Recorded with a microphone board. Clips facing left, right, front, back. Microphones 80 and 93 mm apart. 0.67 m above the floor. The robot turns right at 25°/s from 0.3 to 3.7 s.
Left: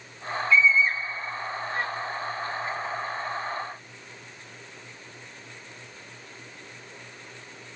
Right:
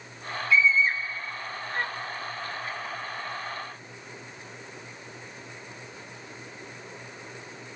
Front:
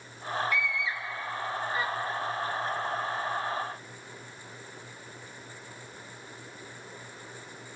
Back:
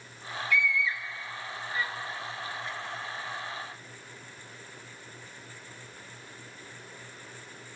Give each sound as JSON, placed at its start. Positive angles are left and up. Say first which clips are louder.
{"t": 0.5, "sound": "a scream", "louder": "left 1 dB, back 2 dB", "azimuth_deg": -10, "distance_m": 1.2}